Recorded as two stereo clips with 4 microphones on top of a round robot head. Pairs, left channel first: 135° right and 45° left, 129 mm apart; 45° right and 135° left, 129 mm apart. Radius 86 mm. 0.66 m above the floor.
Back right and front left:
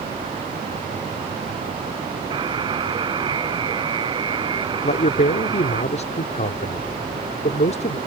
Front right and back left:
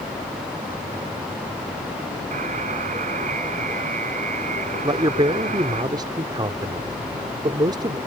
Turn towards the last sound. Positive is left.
turn(degrees=-165)